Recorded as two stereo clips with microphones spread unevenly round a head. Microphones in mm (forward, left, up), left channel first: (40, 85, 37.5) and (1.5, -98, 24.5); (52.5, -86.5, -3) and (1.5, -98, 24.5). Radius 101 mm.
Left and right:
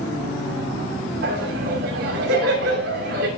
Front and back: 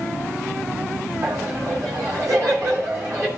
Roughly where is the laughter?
Behind right.